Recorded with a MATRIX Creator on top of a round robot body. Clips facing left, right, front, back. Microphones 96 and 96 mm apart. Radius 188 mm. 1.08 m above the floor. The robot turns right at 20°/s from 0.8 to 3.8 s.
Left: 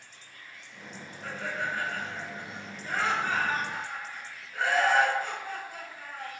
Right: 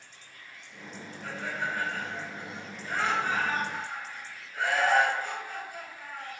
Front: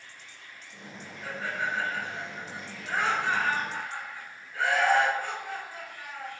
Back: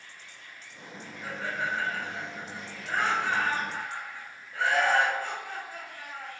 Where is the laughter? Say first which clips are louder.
Even, even; 110° left, 1.4 m; by 6.3 s 160° left, 1.4 m.